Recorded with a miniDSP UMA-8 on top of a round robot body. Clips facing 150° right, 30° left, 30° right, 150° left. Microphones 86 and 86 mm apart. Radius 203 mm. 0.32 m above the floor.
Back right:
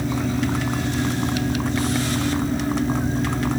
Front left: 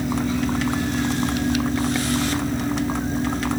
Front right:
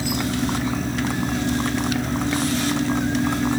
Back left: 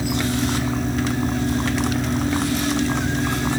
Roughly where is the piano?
No piano in this recording.